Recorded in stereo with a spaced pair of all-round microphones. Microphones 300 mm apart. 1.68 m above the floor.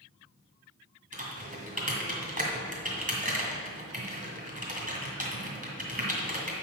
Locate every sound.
1.1 s typing on a keyboard: 25° right (ahead or behind), 2 m